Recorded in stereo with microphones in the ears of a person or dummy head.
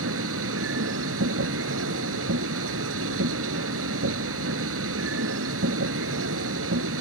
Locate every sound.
0.0 s a machine running: 85° right